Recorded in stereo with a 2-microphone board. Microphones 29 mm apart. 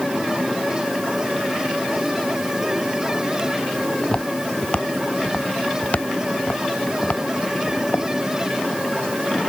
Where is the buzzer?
I don't hear a buzzer.